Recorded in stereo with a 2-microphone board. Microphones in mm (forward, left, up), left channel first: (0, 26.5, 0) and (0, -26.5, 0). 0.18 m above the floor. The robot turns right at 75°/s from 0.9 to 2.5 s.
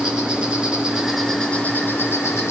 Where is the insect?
20° right, 2 m; by 2.5 s 100° left, 2 m.